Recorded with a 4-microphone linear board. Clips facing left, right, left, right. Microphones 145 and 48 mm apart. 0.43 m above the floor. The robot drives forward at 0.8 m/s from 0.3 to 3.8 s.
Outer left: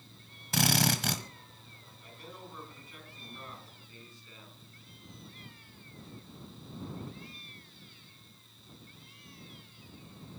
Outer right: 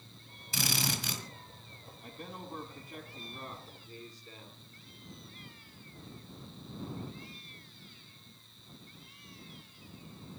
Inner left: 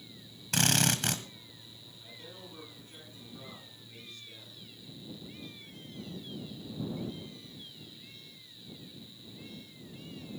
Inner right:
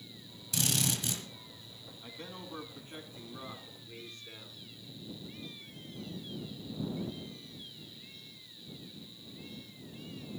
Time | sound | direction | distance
0.5 | a drill | 65° left (ahead or behind) | 1.6 m
2.0 | a man speaking | 55° right (ahead or behind) | 3.5 m